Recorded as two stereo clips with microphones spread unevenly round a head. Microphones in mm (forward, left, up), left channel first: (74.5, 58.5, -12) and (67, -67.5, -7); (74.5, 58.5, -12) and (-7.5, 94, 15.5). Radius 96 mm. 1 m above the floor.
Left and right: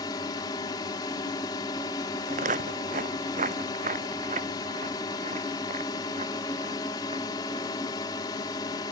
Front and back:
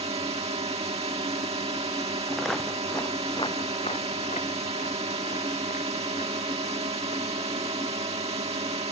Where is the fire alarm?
No fire alarm in this recording.